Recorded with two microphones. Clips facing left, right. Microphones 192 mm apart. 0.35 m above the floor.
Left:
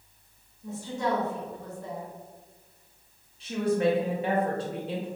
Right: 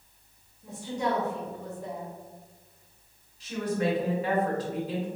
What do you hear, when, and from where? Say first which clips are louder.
0.6 s a woman speaking: even; 15° right (ahead or behind), 1.3 m
3.4 s a woman speaking: left 4 dB; 30° left (ahead or behind), 0.9 m